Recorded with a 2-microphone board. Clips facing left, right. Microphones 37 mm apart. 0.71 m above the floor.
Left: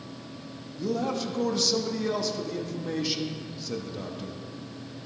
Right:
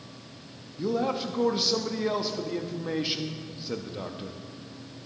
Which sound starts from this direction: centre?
A man speaking, at 0.8 s.